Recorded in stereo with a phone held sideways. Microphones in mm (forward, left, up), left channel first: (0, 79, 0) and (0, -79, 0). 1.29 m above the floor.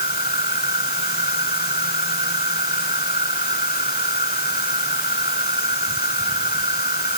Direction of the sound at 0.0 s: 80° left.